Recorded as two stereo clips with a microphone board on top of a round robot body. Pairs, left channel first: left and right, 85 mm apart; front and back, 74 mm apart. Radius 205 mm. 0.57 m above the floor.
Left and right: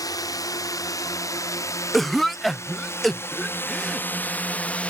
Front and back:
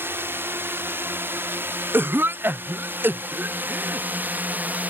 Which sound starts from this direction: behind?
A cough, at 1.9 s.